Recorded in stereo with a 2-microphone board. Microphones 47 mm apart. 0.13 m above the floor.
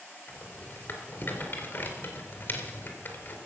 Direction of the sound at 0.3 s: 40° left (ahead or behind).